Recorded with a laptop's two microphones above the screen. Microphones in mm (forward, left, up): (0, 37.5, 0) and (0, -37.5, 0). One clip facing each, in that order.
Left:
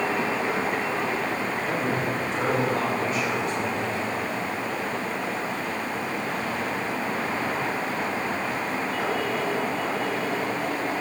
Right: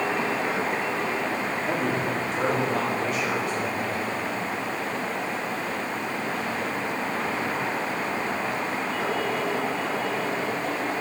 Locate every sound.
1.6 s a man speaking: 70° right (ahead or behind), 2.5 m